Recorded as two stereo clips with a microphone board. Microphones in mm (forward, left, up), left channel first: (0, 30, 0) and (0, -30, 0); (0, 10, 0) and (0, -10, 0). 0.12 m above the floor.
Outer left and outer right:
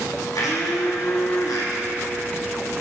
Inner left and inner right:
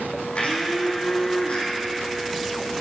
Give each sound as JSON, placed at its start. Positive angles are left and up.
{"t": 0.3, "sound": "a blender", "side_deg": 80, "distance_m": 3.0}